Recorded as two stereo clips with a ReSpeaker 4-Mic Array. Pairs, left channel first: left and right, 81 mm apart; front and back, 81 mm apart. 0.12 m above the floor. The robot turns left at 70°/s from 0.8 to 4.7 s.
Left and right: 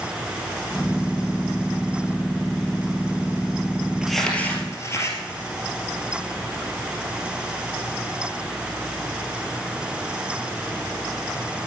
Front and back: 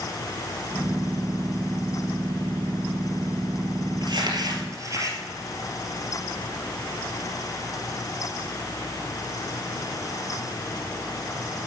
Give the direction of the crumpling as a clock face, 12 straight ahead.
6 o'clock.